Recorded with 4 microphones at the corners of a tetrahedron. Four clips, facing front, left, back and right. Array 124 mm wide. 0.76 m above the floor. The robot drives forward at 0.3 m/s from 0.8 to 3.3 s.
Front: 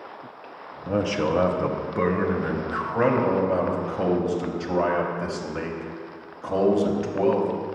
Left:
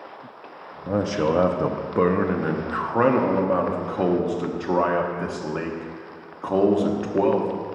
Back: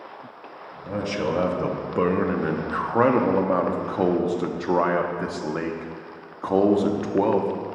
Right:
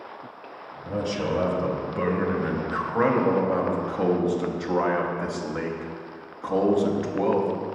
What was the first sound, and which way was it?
A man speaking, 75° left.